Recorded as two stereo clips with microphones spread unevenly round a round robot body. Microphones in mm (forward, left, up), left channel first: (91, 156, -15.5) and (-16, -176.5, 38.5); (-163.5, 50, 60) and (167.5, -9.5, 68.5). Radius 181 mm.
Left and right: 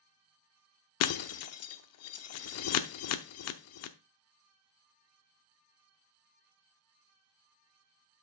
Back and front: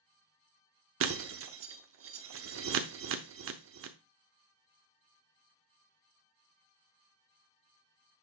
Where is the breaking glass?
30° left, 0.7 m.